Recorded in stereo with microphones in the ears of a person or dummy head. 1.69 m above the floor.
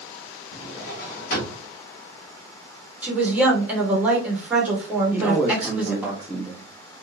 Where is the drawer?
55° left (ahead or behind), 1.6 m.